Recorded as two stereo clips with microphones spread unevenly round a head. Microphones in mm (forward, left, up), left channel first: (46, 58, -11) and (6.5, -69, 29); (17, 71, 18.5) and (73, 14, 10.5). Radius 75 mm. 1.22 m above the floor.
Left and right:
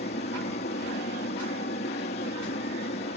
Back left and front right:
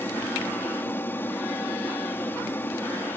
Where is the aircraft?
75° left.